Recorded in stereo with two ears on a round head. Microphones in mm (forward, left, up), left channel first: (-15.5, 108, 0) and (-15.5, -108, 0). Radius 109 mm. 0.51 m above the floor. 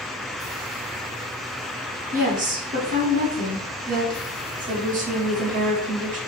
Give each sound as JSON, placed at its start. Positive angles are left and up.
{"t": 2.1, "sound": "a woman speaking", "side_deg": -35, "distance_m": 4.0}